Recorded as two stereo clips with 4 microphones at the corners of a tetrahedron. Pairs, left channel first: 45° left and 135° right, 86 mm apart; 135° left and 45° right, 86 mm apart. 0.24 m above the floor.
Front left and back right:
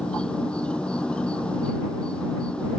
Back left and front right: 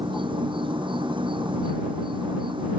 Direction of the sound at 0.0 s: 35° right.